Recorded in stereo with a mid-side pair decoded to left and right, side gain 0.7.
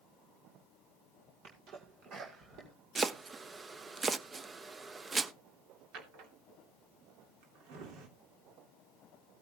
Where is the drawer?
65° right, 2.5 m.